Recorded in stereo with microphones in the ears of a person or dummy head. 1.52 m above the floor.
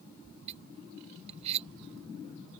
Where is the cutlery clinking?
30° right (ahead or behind).